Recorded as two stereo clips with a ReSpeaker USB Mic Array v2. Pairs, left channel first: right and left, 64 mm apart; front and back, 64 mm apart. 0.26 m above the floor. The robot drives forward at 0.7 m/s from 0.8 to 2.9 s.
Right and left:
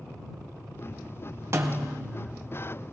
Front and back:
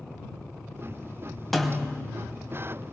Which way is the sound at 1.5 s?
85° left.